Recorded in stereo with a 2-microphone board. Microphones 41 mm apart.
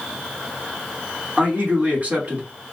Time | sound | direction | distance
1.4 | a man speaking | 40° right (ahead or behind) | 1.3 m